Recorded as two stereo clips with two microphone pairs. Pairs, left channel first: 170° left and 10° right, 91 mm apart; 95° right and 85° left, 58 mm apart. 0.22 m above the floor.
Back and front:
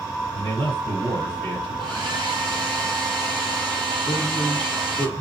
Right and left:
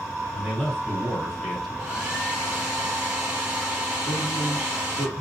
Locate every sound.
0.3 s a man speaking: 5° right, 2.5 m
1.8 s a hair dryer: 20° left, 3.5 m
4.1 s a man speaking: 80° right, 1.8 m